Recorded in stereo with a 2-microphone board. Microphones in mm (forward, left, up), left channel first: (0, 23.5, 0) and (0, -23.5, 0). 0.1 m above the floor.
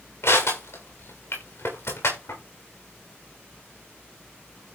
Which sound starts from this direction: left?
Crushing, at 0.2 s.